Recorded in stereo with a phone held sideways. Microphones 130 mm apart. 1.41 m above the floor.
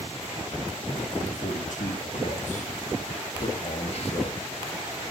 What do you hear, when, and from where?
1.3 s a man speaking: 85° left, 3 m; by 4.4 s 45° left (ahead or behind), 2.5 m